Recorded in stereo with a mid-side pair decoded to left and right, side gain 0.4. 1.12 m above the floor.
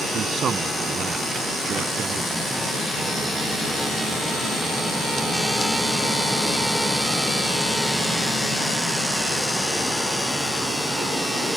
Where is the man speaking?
60° right.